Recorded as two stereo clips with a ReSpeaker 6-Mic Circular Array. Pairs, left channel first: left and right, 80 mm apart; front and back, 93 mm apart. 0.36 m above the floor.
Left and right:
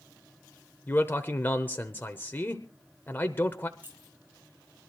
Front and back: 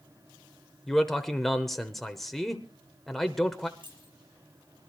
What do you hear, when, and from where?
0.9 s a man speaking: 80° left, 0.9 m
3.8 s keys jangling: 155° right, 3.5 m